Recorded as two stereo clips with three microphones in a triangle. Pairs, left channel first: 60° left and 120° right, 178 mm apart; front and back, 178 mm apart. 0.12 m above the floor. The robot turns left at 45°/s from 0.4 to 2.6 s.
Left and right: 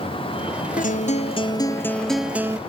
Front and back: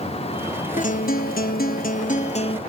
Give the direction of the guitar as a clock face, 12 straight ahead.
11 o'clock.